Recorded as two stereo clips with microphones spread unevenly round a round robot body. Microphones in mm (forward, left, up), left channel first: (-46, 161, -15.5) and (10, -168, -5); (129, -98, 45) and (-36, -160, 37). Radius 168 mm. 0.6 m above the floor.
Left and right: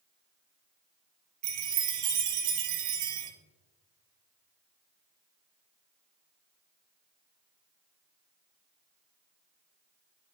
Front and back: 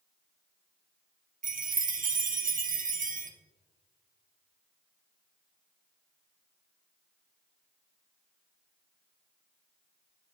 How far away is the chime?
About 1.0 m.